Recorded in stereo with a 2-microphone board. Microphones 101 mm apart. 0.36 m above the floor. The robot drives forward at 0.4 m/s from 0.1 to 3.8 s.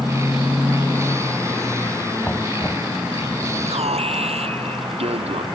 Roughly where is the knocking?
Centre.